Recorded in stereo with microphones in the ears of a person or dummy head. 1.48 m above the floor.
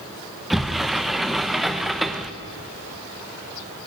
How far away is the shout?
No shout in this recording.